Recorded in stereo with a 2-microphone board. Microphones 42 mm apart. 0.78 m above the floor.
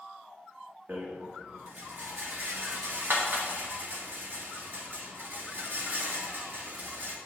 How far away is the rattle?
About 1.8 m.